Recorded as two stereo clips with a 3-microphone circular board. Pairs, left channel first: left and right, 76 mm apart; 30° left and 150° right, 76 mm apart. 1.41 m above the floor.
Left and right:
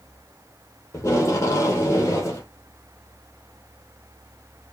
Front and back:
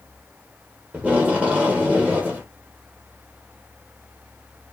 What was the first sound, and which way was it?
Tape being pulled, 140° left.